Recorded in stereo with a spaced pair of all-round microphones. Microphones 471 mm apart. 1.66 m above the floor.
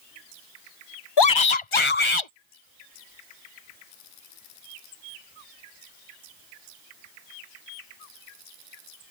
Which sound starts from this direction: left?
A shout, at 1.2 s.